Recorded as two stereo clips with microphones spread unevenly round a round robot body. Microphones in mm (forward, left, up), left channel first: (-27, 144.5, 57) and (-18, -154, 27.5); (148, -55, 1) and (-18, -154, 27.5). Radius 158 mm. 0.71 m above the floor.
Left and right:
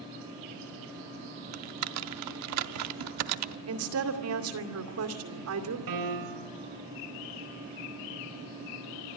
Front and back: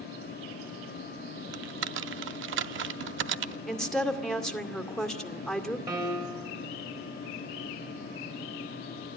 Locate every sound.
1.5 s typing on a keyboard: 125° right, 0.7 m
3.7 s a woman speaking: 55° right, 2 m
5.9 s a piano: 75° right, 3.5 m